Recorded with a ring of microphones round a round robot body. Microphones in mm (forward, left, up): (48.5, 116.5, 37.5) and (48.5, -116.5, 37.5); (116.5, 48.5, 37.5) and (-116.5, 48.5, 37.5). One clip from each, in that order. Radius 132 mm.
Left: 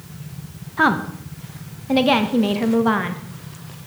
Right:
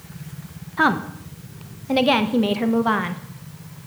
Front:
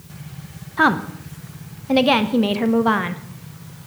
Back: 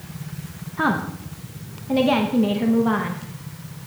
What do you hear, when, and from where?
0.8 s a woman speaking: 15° right, 0.6 m